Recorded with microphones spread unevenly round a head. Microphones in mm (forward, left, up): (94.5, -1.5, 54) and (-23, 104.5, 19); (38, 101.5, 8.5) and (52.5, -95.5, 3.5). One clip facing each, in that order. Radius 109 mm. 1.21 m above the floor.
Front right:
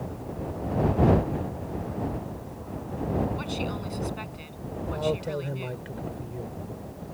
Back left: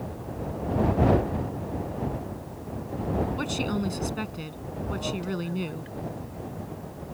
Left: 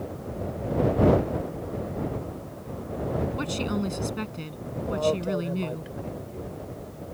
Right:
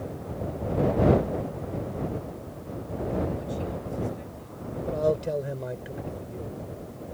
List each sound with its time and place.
3.4 s a woman speaking: 105° left; by 5.9 s 95° left
4.9 s a man speaking: 20° right